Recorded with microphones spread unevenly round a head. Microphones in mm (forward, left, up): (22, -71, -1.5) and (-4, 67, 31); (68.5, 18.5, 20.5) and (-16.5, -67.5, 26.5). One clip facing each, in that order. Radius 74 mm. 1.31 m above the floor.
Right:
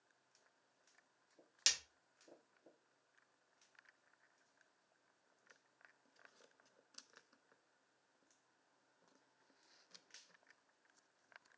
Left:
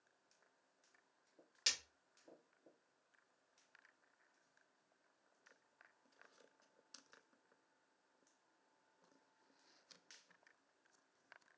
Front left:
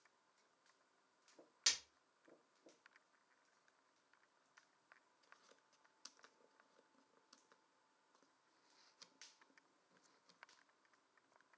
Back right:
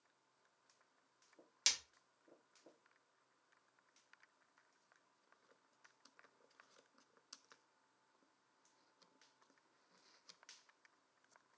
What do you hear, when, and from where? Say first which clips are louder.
1.7 s breaking glass: right 1 dB, back right 1 dB; 110° right, 1.0 m